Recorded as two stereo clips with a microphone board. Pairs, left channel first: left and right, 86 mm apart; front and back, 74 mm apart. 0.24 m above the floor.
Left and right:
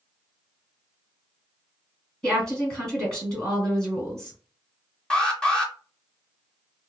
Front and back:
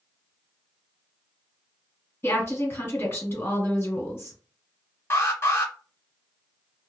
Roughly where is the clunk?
No clunk in this recording.